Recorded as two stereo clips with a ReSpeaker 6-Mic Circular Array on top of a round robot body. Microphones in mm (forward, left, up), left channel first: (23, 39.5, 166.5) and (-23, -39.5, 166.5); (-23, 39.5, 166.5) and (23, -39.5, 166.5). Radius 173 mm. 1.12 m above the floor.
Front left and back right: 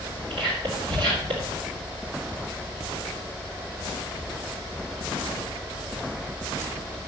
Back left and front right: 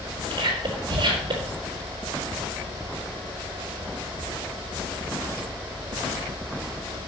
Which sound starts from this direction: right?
Whispering, at 0.3 s.